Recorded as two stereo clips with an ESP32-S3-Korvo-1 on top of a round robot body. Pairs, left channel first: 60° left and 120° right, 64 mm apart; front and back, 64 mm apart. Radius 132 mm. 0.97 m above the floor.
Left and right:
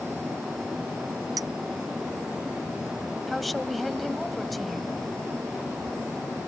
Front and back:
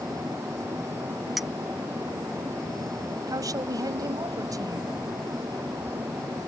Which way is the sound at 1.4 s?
95° right.